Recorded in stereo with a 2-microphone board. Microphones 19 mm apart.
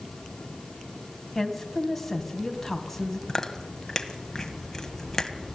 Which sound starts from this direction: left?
Chewing, at 3.3 s.